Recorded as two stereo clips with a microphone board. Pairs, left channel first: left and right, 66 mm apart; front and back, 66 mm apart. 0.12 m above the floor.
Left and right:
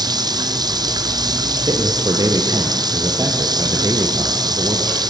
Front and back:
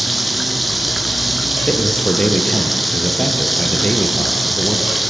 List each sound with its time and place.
0.0 s running water: 90° right, 1.0 m
1.7 s a man speaking: 75° right, 3.5 m